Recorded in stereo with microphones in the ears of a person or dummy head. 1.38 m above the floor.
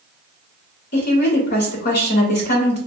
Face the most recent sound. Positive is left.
turn(degrees=35)  # may be behind; listen again after turning